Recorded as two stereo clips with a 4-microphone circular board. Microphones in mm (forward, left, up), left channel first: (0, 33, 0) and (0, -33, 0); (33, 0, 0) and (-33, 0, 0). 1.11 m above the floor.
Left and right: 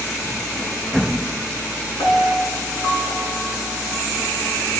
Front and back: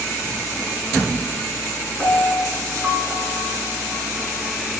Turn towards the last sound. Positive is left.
turn(degrees=70)